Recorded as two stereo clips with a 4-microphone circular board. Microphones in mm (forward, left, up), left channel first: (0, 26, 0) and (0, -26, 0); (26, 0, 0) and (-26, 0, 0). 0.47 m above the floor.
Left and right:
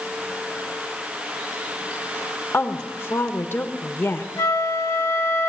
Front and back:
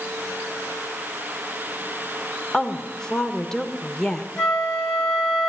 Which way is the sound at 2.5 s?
75° left.